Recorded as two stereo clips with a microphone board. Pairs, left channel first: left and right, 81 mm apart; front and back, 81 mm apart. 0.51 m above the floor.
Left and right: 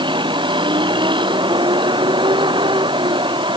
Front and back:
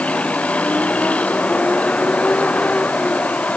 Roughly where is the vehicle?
Right.